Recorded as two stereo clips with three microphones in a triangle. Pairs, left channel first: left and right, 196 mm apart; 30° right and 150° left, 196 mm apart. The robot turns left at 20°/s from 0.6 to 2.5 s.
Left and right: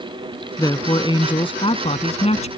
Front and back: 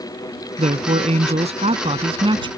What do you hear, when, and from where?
0.6 s a man speaking: 145° left; by 2.5 s 110° left